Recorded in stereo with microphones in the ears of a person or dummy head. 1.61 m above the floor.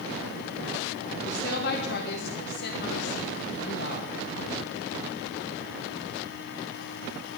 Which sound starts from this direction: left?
A woman speaking, at 1.2 s.